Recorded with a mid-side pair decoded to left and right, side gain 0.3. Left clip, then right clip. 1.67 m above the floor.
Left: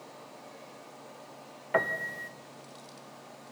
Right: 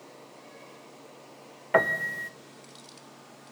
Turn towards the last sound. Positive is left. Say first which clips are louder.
# right 5 dB
turn(degrees=-55)